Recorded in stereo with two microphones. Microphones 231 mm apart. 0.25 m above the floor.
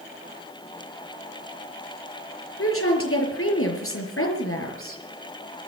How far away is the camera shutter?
I don't hear a camera shutter.